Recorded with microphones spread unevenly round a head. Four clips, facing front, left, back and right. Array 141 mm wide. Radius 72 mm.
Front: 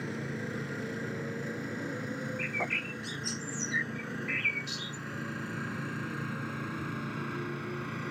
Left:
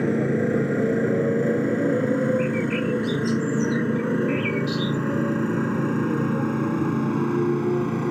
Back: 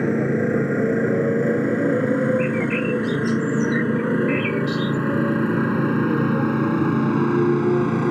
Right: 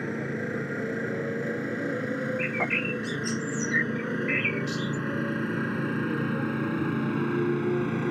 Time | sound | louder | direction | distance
0.0 | a motorcycle | left 10 dB, back 17 dB | 145° left | ?
2.4 | a bird | left 6 dB, back 15 dB | 80° right | ?